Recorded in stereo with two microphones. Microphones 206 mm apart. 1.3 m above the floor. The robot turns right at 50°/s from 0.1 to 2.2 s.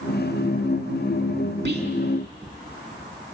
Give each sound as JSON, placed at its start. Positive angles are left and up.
{"t": 1.6, "sound": "whispering", "side_deg": -55, "distance_m": 2.0}